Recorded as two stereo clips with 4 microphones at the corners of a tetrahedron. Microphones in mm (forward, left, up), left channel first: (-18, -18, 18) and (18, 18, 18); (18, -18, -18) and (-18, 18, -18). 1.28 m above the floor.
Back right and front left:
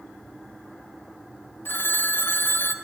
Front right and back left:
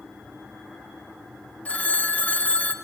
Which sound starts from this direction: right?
A phone ringing, at 1.6 s.